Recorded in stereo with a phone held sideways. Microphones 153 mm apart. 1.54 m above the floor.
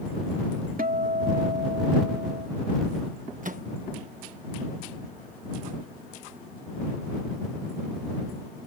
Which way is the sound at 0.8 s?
70° right (ahead or behind).